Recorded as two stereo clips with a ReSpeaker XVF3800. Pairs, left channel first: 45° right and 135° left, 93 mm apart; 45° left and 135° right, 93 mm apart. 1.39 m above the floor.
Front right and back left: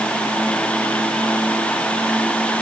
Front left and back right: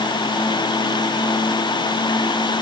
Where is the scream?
No scream in this recording.